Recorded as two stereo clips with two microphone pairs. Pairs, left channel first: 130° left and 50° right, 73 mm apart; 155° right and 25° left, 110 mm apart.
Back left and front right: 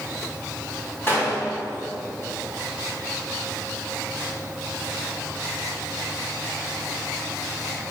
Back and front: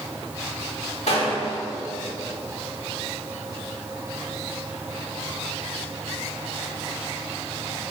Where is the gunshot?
175° right, 1.6 m.